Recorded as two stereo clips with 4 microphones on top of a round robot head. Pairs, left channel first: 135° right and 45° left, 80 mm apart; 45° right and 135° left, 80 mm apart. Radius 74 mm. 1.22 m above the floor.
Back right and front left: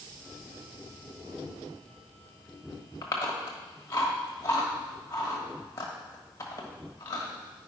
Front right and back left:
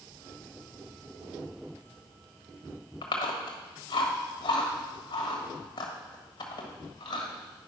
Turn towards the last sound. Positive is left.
turn(degrees=-75)